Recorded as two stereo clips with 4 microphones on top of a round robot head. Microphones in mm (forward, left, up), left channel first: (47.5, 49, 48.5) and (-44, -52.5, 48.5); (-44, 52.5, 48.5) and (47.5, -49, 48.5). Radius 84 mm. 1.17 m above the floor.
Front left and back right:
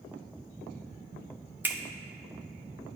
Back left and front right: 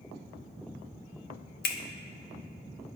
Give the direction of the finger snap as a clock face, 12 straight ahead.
7 o'clock.